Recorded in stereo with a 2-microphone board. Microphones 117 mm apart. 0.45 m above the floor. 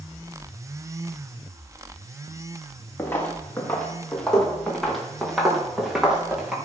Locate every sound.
3.0 s footsteps: 15° left (ahead or behind), 4 m; by 6.6 s 10° right (ahead or behind), 5.5 m